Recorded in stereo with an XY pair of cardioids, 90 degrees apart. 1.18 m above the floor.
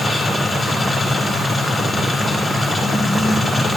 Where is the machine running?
30° left, 3 m.